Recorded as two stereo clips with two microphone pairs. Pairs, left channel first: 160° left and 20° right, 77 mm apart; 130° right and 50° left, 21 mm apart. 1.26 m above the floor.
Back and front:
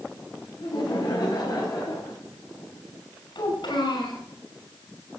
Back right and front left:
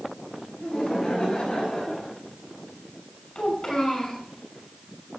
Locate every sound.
0.6 s laughter: 170° right, 7 m; by 2.1 s 155° right, 7.5 m
3.4 s a child speaking: 170° left, 6 m